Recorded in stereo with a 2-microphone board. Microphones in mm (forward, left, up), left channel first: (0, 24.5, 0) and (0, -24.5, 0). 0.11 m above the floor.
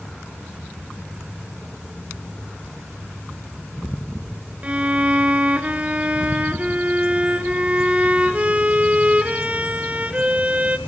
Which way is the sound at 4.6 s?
25° right (ahead or behind).